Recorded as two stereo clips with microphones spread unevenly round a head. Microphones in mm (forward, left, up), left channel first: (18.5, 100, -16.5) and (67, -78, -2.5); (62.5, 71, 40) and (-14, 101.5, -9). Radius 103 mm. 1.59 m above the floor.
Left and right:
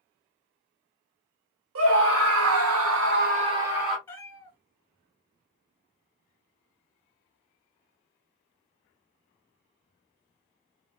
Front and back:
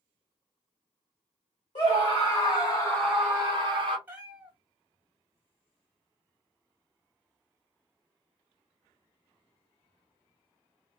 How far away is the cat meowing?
About 1.5 m.